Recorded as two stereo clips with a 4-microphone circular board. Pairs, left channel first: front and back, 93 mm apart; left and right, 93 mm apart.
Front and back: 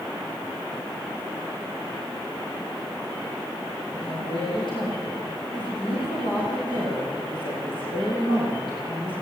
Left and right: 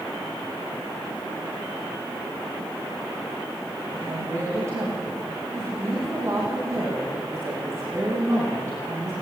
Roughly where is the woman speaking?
Ahead right.